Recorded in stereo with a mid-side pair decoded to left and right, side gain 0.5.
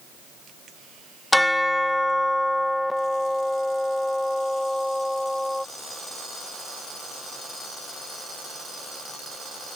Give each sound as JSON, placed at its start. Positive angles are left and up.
{"t": 1.3, "sound": "a bell", "azimuth_deg": 10}